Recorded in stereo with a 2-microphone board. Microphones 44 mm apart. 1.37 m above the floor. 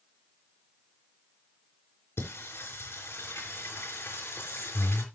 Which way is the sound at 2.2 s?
60° left (ahead or behind).